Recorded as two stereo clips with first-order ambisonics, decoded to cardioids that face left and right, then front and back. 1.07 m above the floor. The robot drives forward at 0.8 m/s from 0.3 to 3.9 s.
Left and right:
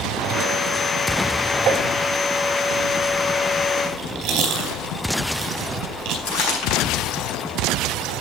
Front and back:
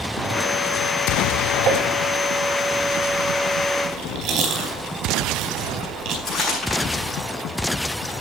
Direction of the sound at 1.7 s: 145° right.